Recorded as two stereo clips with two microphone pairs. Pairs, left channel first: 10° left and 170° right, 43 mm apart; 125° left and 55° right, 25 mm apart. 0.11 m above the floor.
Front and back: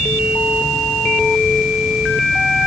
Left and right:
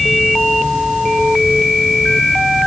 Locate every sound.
Only background noise.